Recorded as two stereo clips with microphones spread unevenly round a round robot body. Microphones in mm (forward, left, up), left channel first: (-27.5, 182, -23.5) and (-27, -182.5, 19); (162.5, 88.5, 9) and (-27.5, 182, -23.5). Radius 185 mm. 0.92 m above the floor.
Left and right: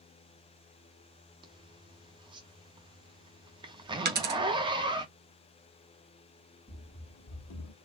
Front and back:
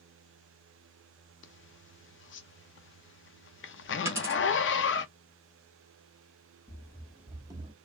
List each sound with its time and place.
1.4 s a zipper: 15° right, 0.6 m
4.0 s a dropped coin: 120° right, 1.0 m
6.7 s running footsteps: 5° left, 1.0 m; by 7.7 s 90° left, 1.1 m